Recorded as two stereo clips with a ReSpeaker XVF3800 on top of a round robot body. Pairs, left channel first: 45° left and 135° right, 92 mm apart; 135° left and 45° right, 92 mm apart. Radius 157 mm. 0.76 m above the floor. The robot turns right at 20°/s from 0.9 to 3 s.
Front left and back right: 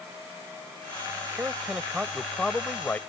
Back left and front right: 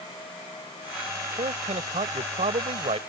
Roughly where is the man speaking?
Ahead right.